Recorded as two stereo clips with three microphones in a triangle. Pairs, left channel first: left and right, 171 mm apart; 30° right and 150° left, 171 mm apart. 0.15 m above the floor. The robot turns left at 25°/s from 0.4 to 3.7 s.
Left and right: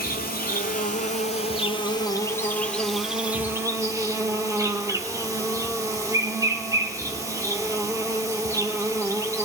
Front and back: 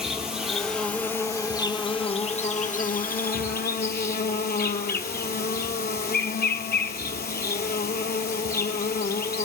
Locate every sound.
0.0 s an insect: 65° left, 1.2 m; by 9.4 s 20° right, 1.2 m